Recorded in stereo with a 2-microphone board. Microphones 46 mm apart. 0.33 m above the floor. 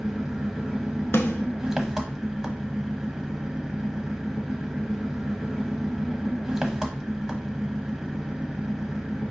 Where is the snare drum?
80° left, 0.8 m.